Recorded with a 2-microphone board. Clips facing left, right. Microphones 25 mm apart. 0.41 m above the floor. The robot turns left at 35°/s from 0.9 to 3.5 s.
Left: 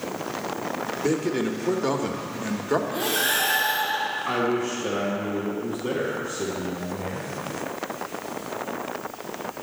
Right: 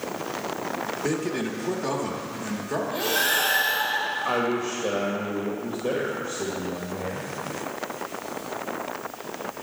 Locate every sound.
1.0 s a man speaking: 10° left (ahead or behind), 0.8 m; by 2.8 s 30° left (ahead or behind), 0.8 m
2.9 s breathing: 20° right (ahead or behind), 1.9 m; by 4.2 s 35° right (ahead or behind), 1.9 m
4.2 s a man speaking: 30° right (ahead or behind), 1.5 m